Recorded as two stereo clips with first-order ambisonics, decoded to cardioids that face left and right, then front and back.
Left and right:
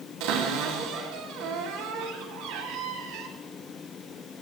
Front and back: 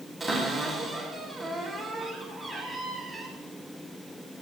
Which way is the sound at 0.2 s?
90° right.